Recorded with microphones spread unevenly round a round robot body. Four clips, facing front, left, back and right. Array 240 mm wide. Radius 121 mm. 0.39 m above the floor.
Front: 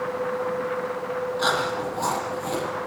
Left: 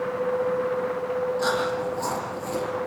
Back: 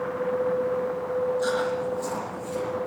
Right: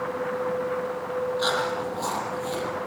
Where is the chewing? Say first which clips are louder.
Left 1 dB, front 1 dB; 5° left, 8.5 m.